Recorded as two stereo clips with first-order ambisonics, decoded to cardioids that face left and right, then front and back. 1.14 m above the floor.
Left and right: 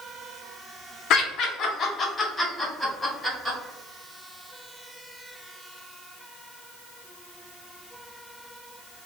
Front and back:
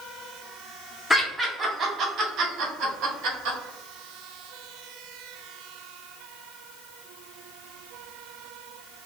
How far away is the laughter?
About 0.7 m.